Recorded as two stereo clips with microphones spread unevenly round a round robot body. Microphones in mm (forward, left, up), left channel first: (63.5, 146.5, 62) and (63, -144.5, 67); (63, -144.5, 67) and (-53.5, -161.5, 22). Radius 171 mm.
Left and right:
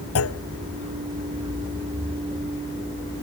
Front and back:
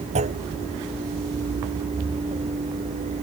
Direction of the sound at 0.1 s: 140° left.